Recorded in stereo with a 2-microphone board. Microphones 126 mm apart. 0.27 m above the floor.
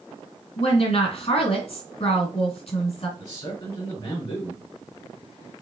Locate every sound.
0.6 s a woman speaking: 55° left (ahead or behind), 1.9 m
3.2 s a man speaking: 45° left (ahead or behind), 2.5 m